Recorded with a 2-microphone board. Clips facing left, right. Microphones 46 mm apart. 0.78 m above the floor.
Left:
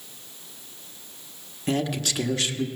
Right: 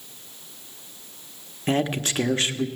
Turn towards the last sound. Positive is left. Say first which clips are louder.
# right 2 dB
turn(degrees=-35)  # may be behind; listen again after turning